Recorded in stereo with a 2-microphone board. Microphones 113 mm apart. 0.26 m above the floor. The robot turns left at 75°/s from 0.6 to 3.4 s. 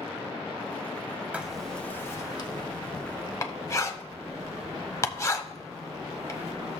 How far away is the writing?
About 0.9 m.